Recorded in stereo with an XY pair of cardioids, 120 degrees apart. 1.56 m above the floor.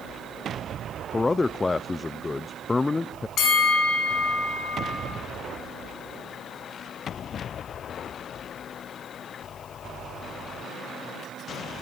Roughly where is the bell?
Ahead left.